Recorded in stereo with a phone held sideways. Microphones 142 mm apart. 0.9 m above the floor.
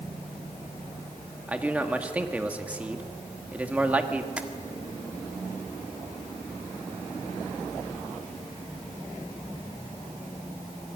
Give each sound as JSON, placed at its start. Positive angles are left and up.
{"t": 1.5, "sound": "a man speaking", "side_deg": -10, "distance_m": 2.0}
{"t": 4.4, "sound": "tapping", "side_deg": -10, "distance_m": 1.6}